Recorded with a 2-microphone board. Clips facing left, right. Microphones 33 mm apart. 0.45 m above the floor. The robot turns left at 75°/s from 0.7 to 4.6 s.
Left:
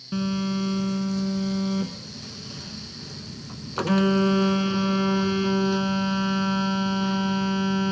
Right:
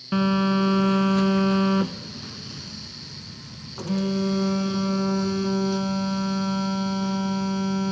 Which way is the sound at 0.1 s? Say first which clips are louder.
Right 5 dB; 40° right.